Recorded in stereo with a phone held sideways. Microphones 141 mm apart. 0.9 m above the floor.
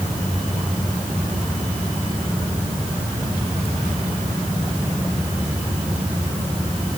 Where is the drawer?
I don't hear a drawer.